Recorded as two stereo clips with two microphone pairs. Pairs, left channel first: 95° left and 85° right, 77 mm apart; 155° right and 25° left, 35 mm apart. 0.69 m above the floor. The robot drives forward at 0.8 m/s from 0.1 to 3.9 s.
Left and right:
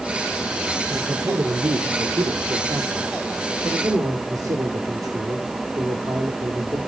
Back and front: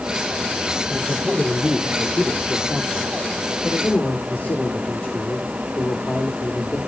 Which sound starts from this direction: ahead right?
A man speaking, at 0.9 s.